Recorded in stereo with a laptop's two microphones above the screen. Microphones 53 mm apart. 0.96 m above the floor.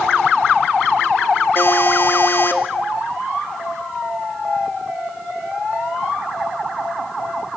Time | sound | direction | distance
1.6 | a buzzer | 50° left (ahead or behind) | 2.5 m